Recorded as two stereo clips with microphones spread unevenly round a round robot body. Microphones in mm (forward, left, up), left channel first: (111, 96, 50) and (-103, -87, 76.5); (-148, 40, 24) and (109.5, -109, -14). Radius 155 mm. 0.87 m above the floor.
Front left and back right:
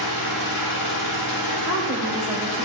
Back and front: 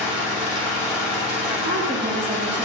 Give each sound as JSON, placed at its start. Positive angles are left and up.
{"t": 0.0, "sound": "an engine running", "azimuth_deg": 60, "distance_m": 1.7}
{"t": 1.6, "sound": "a woman speaking", "azimuth_deg": 15, "distance_m": 2.5}